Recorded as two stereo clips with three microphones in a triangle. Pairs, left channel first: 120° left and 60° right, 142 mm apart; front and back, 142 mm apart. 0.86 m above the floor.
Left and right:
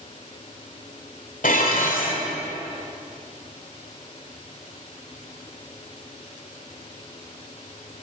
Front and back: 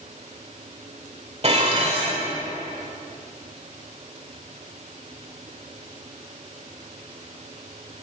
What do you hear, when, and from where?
1.4 s dishes clattering: 140° left, 2.0 m